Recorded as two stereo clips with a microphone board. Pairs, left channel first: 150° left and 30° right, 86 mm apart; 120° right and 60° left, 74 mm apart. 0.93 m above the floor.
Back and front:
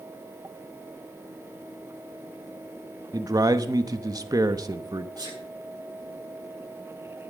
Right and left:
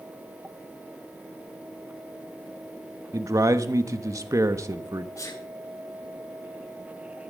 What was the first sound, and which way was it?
A man speaking, 15° left.